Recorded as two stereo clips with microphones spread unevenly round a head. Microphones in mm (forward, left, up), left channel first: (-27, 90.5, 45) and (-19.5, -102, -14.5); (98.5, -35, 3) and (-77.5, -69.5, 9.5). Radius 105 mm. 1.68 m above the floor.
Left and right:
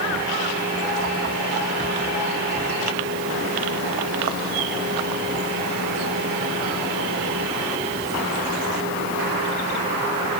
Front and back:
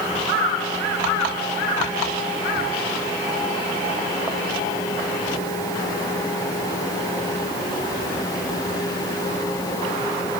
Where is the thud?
No thud in this recording.